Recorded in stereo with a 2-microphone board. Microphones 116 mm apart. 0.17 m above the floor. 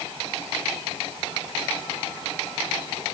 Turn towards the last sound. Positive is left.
No sound to turn to.